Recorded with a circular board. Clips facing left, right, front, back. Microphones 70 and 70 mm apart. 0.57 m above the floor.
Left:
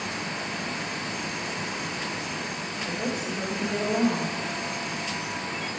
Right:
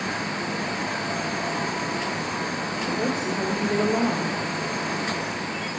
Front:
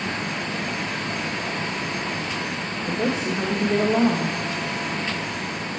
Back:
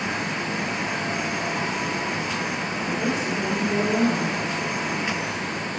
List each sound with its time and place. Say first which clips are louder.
2.8 s a woman speaking: right 4 dB, front 2 dB; 45° right, 1.3 m